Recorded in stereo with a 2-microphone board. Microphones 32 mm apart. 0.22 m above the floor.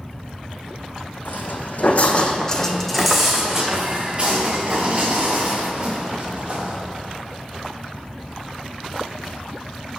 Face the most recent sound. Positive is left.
turn(degrees=-40)  # may be behind; listen again after turning